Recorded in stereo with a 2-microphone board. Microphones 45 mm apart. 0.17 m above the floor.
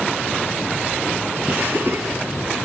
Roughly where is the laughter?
Right.